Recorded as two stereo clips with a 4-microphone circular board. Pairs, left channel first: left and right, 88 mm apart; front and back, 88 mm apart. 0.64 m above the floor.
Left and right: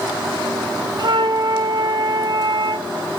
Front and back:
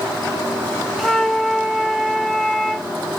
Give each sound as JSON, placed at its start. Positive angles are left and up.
{"t": 1.0, "sound": "a flute", "azimuth_deg": -90, "distance_m": 0.7}